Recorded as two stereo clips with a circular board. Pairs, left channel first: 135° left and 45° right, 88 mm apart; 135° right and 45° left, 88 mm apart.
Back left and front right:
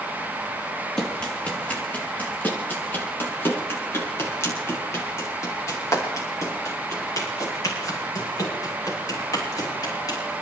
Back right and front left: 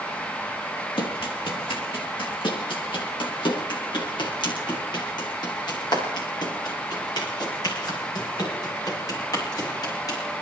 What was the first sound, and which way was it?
Running footsteps, 145° right.